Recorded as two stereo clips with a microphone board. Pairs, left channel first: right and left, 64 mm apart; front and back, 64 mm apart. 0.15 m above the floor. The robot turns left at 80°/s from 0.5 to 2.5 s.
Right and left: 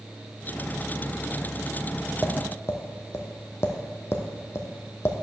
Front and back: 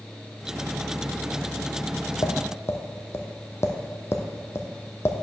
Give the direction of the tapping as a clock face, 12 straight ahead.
1 o'clock.